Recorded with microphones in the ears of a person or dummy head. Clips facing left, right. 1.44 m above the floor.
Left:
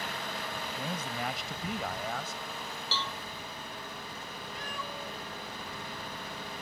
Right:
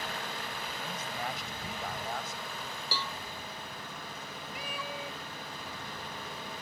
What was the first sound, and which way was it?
A man speaking, 65° left (ahead or behind).